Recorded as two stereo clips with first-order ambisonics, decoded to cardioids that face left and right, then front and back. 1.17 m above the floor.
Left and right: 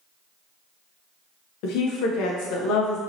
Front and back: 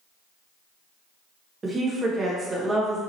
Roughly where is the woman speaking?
Left.